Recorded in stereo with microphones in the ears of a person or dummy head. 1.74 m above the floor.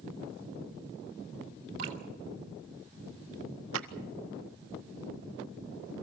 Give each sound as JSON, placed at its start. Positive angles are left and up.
{"t": 1.8, "sound": "dripping", "side_deg": -30, "distance_m": 1.3}
{"t": 3.7, "sound": "a clap", "side_deg": -75, "distance_m": 1.4}